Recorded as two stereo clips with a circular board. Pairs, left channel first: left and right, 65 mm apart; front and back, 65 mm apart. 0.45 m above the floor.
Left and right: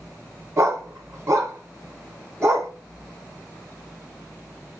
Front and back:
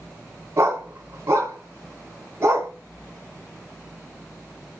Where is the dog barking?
135° right, 1.6 m.